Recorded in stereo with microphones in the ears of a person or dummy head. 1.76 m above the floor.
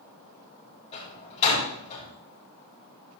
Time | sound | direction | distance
0.9 | a door slam | 30° left (ahead or behind) | 6.5 m